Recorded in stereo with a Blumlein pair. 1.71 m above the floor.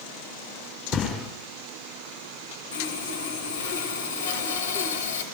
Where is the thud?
25° left, 6 m.